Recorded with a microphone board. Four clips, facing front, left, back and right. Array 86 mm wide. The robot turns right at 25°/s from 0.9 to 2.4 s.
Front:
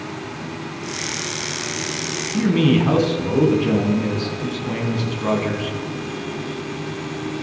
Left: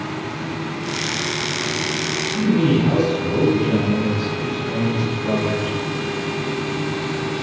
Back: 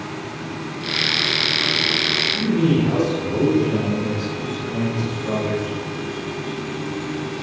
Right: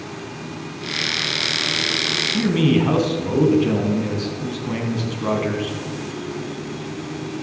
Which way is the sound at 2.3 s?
40° right.